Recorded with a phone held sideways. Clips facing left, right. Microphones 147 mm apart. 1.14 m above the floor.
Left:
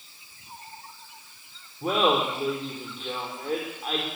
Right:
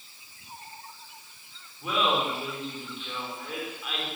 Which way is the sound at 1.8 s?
45° left (ahead or behind).